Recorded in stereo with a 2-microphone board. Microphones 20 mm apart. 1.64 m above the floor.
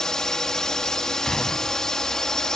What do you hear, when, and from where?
0.0 s a drone: 30° left (ahead or behind)
1.2 s a gunshot: 30° left (ahead or behind)